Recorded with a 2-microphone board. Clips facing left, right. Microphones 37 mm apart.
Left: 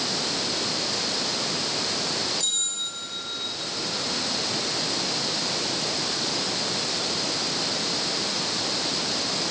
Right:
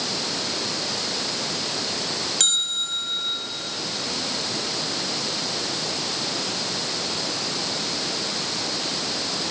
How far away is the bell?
About 6.5 m.